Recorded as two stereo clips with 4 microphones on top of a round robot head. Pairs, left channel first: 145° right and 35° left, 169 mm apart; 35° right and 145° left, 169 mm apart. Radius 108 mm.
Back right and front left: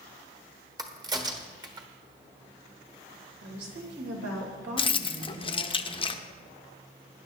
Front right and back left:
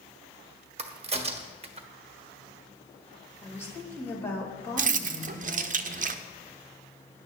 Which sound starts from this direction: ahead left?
A woman speaking, at 3.4 s.